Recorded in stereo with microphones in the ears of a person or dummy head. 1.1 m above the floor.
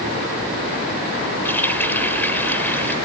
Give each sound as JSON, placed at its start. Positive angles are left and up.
{"t": 1.4, "sound": "a running tap", "side_deg": 10}